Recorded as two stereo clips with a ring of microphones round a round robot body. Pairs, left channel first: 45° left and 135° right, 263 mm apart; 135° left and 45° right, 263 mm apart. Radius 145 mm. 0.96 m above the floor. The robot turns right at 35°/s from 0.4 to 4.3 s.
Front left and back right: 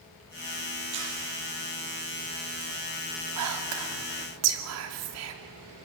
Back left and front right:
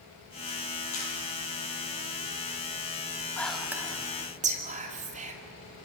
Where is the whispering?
140° right, 2.5 m; by 5.3 s 110° right, 2.5 m.